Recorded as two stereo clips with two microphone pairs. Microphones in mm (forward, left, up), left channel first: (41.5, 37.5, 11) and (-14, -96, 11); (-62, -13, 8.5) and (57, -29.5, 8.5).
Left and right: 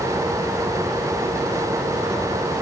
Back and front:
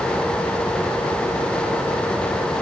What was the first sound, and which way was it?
Only background noise.